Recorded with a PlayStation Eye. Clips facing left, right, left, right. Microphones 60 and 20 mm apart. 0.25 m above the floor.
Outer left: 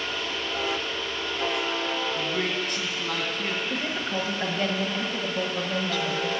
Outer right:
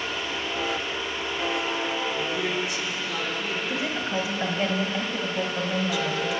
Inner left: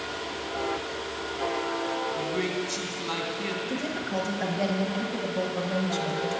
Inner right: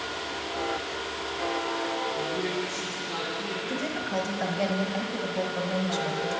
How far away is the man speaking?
About 2.5 m.